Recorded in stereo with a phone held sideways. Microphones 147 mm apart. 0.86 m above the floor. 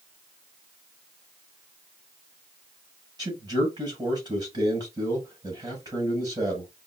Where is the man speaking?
30° right (ahead or behind), 4.5 m.